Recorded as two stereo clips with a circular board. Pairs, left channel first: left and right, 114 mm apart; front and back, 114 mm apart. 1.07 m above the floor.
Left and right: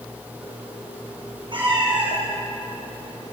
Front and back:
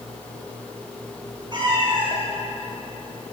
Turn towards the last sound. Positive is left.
turn(degrees=-145)